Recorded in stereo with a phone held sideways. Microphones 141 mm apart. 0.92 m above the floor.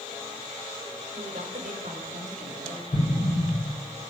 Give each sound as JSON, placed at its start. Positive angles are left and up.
{"t": 1.1, "sound": "a woman speaking", "side_deg": -70, "distance_m": 3.5}
{"t": 2.9, "sound": "an explosion", "side_deg": 60, "distance_m": 3.0}